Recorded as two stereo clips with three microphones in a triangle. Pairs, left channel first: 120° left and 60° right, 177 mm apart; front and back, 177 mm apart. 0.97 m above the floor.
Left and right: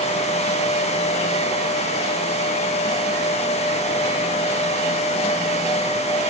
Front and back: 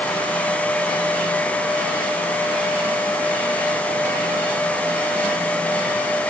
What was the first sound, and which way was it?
Only background noise.